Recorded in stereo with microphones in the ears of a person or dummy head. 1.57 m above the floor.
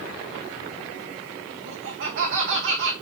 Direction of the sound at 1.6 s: 60° right (ahead or behind).